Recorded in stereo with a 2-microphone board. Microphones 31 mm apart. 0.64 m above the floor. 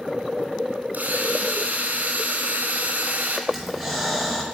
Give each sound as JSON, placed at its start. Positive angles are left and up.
{"t": 0.9, "sound": "a drill", "side_deg": -75, "distance_m": 3.0}
{"t": 3.5, "sound": "breathing", "side_deg": 0, "distance_m": 4.5}